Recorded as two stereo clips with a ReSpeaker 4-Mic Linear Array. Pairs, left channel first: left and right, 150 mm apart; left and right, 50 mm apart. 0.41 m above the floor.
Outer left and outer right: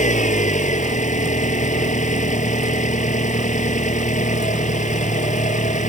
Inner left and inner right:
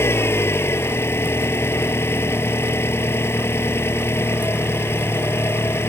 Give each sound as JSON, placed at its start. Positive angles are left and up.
{"t": 0.0, "sound": "an engine running", "side_deg": 55}